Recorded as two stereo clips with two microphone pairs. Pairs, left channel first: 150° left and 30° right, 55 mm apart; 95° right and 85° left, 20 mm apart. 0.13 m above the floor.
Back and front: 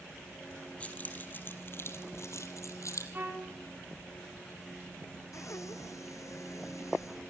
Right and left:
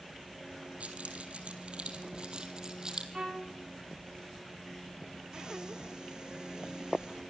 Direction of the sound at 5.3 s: 135° left.